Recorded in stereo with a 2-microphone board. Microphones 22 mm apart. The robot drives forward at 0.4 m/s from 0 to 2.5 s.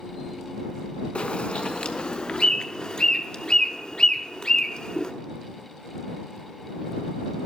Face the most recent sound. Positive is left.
turn(degrees=40)  # may be behind; listen again after turning